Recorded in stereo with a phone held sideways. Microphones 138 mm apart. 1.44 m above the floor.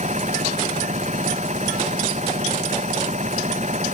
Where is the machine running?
55° right (ahead or behind).